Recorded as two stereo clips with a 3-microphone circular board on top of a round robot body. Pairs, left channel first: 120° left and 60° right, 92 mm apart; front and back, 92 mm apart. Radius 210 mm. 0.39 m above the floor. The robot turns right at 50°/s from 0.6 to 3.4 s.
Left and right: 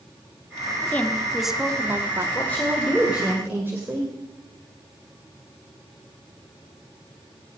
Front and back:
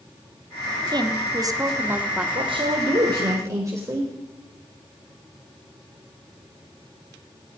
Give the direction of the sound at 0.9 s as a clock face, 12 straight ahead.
6 o'clock.